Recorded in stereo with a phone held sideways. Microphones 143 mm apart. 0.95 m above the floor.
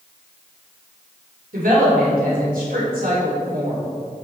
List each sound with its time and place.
1.5 s a woman speaking: 80° right, 2.5 m